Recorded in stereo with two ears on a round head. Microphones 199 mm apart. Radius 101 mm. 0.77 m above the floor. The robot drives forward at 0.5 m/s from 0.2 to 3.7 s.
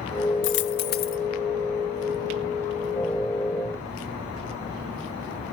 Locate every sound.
0.4 s a dropped coin: 60° left (ahead or behind), 0.7 m; by 1.2 s 40° left (ahead or behind), 0.9 m